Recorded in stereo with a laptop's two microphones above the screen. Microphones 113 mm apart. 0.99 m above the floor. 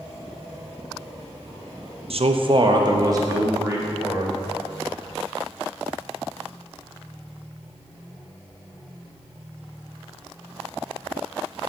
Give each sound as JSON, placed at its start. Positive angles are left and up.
{"t": 2.1, "sound": "a man speaking", "side_deg": -60, "distance_m": 0.5}